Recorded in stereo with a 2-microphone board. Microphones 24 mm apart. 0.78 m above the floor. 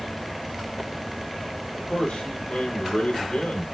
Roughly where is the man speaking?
Left.